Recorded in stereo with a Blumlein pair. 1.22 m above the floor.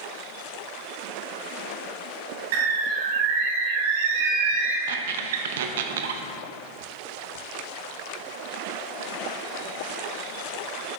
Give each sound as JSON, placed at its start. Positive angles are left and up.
{"t": 2.5, "sound": "a bird", "azimuth_deg": -55, "distance_m": 1.9}
{"t": 4.9, "sound": "a squeak", "azimuth_deg": -55, "distance_m": 0.7}